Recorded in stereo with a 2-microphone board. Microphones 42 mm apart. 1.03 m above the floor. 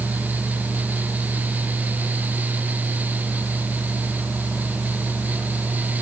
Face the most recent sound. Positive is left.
No sound to turn to.